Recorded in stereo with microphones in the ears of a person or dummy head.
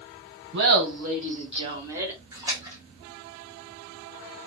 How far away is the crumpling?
No crumpling in this recording.